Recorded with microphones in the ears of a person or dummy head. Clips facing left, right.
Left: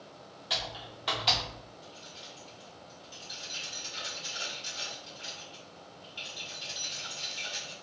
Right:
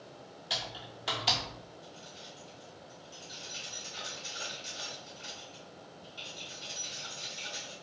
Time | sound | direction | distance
0.5 | typing on a keyboard | 5° right (ahead or behind) | 0.5 m
1.8 | keys jangling | 30° left (ahead or behind) | 1.7 m